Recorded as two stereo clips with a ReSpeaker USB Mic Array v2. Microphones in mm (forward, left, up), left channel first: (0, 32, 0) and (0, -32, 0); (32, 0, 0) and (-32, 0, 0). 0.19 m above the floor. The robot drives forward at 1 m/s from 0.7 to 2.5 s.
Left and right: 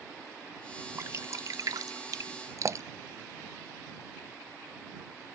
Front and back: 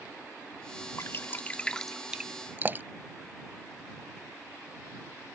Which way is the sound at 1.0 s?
40° right.